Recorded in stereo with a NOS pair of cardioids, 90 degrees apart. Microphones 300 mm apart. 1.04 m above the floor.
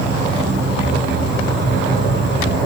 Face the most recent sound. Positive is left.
turn(degrees=-40)